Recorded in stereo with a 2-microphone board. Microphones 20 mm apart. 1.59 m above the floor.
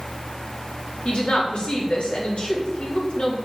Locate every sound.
1.1 s a woman speaking: 60° left (ahead or behind), 4 m